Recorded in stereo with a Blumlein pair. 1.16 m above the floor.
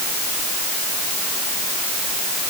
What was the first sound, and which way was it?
Only background noise.